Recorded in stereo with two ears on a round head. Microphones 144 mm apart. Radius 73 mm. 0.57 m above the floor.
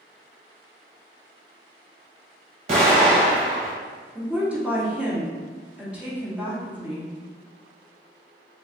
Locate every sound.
2.7 s an explosion: 45° right (ahead or behind), 1.5 m
4.2 s a woman speaking: 5° right (ahead or behind), 1.2 m